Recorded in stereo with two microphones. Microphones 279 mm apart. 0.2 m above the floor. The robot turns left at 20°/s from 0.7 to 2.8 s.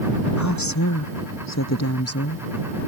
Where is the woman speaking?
90° left; by 2.9 s 45° left.